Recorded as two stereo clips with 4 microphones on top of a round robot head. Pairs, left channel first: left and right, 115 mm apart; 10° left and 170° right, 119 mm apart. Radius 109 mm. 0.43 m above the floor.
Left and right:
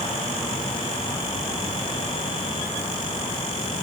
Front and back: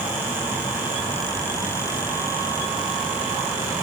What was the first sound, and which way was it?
Only background noise.